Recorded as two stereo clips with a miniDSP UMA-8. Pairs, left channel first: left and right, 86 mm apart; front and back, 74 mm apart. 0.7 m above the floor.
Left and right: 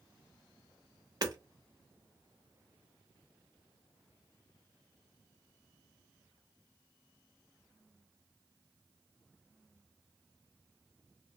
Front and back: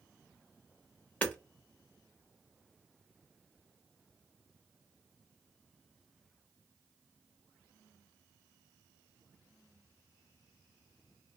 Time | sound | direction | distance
1.2 | hammering | 65° right | 0.7 m